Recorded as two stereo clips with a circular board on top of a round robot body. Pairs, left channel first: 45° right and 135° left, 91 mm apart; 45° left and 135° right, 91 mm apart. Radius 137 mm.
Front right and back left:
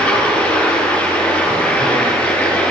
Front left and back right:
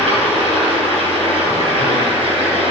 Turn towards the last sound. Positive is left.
turn(degrees=-125)